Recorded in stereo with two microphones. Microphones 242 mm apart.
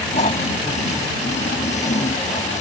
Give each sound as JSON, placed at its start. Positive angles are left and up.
{"t": 0.1, "sound": "snoring", "side_deg": 30}